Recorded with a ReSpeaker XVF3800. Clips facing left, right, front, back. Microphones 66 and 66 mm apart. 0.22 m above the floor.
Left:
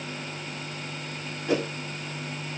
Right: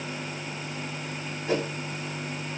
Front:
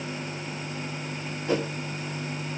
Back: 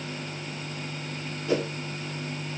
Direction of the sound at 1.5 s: 5° right.